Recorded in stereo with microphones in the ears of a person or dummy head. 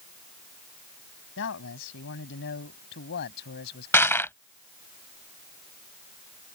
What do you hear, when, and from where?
1.4 s a man speaking: 70° left (ahead or behind); by 4.2 s 55° left (ahead or behind)
3.9 s crushing: 10° left (ahead or behind)